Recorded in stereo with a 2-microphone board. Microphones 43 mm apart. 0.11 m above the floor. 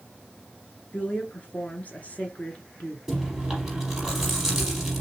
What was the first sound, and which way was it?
A woman speaking, 40° left (ahead or behind).